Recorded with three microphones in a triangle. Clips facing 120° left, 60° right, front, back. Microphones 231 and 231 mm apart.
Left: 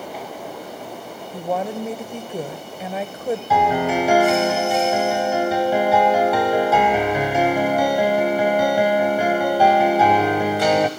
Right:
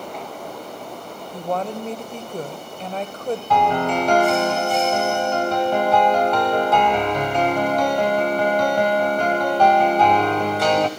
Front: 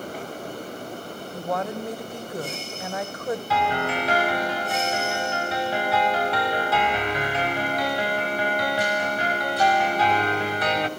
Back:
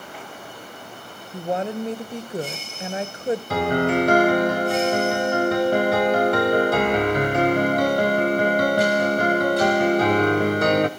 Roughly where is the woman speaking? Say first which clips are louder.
Left 1 dB, back 3 dB; behind.